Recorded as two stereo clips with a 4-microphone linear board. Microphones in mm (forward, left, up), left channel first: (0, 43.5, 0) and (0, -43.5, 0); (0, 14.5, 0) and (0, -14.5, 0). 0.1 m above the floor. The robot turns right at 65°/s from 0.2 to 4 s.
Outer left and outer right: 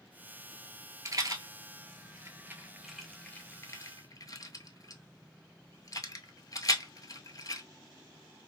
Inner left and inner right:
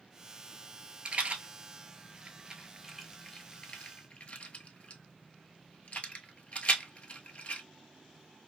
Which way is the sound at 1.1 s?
40° right (ahead or behind).